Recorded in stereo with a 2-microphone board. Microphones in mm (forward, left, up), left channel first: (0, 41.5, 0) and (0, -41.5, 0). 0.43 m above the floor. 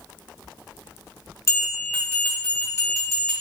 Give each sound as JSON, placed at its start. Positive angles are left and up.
{"t": 1.5, "sound": "a bell", "side_deg": 35, "distance_m": 1.6}